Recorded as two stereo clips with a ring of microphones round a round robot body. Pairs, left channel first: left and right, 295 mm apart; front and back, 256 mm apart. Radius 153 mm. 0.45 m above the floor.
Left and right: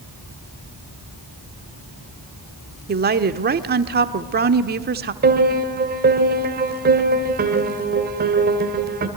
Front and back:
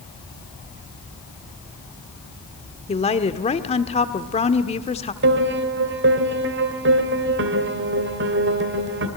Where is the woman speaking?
55° right, 1.1 m.